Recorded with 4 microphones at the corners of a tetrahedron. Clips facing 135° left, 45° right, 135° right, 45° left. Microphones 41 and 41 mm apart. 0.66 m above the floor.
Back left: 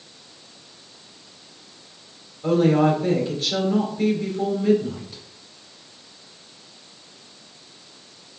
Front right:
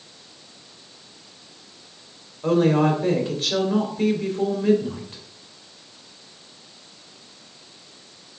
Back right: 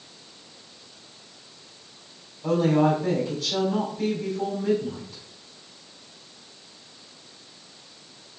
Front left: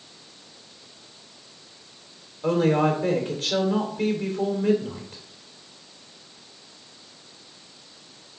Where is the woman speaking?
5° left, 2.5 m.